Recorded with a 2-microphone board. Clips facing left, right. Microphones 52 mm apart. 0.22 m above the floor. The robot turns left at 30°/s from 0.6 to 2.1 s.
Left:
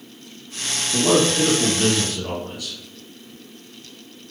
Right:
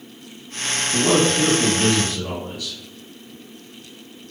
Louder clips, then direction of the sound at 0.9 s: Even; straight behind.